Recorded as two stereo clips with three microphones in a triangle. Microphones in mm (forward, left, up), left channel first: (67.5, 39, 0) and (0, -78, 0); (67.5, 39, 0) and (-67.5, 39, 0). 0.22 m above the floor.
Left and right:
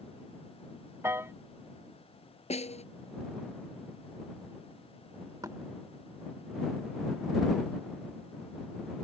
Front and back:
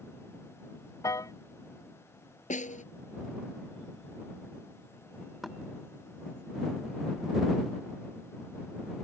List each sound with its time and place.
1.0 s a piano: 55° right
2.5 s a snare drum: 25° left
5.4 s knocking: 90° right